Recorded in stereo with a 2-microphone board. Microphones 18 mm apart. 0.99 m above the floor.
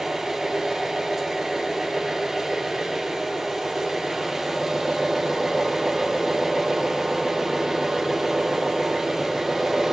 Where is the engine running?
15° right (ahead or behind), 3 m.